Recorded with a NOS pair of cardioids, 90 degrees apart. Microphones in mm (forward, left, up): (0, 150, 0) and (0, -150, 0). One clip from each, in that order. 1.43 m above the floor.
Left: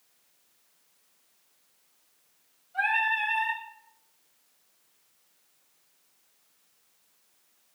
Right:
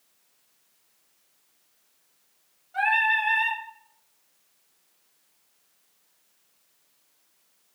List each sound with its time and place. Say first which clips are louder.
2.7 s singing: right 4 dB; 65° right, 1.3 m